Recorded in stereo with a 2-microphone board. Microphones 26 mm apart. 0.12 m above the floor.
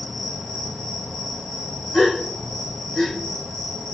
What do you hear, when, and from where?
0.0 s an insect: 15° left (ahead or behind), 1.2 m
1.9 s a gasp: 45° left (ahead or behind), 7.5 m